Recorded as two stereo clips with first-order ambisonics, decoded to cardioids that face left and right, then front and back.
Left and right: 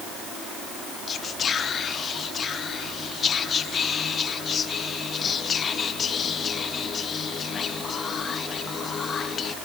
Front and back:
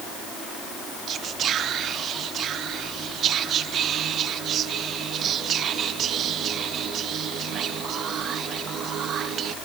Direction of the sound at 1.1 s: 145° left.